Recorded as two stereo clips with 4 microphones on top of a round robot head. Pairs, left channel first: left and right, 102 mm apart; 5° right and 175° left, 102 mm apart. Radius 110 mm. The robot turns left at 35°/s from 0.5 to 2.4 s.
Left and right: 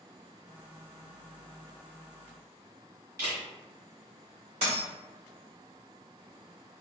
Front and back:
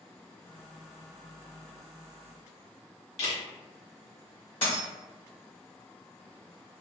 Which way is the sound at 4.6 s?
55° right.